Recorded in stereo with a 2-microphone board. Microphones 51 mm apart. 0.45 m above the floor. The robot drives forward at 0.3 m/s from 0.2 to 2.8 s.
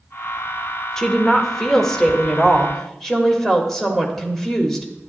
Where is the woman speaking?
10° left (ahead or behind), 1.0 m; by 4.9 s 5° left (ahead or behind), 1.4 m.